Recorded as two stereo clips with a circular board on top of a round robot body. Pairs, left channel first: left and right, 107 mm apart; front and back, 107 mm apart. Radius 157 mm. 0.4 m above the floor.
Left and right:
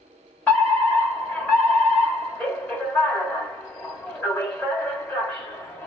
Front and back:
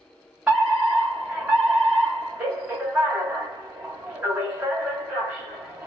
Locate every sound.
0.5 s a fire alarm: 125° left, 1.8 m